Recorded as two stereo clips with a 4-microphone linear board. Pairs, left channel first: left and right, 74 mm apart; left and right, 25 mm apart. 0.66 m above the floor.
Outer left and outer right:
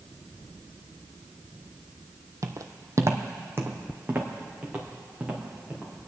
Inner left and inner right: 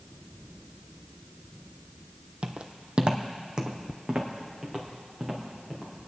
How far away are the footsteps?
About 1.0 m.